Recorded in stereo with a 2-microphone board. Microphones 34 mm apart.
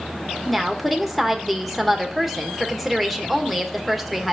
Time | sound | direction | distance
0.5 | a woman speaking | centre (ahead or behind) | 1.5 m